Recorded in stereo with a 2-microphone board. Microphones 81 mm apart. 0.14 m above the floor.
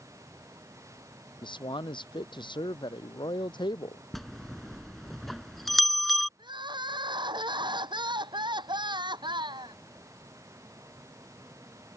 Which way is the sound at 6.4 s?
70° right (ahead or behind).